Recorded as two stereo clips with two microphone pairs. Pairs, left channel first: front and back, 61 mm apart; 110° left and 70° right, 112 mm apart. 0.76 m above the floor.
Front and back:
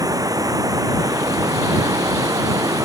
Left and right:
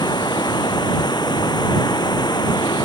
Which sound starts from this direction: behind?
Running water, at 0.0 s.